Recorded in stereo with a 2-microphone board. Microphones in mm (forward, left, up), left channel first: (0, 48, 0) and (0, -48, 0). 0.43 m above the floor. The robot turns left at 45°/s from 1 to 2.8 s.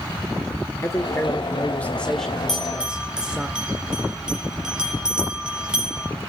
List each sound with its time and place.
0.8 s a man speaking: 65° left, 1.2 m; by 3.5 s 15° right, 1.2 m
2.5 s a bell: 5° left (ahead or behind), 5 m; by 6.1 s 10° right (ahead or behind), 5 m